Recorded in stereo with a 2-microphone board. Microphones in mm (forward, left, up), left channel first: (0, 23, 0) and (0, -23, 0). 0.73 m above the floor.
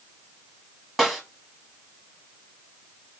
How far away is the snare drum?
About 1.4 m.